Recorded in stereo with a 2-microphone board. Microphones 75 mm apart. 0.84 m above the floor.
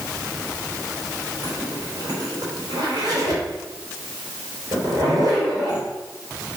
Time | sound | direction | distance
1.4 | a zipper | 70° right (ahead or behind) | 3.5 m